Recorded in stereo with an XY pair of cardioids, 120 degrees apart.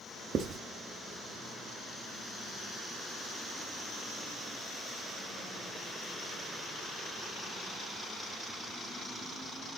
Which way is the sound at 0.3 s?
50° right.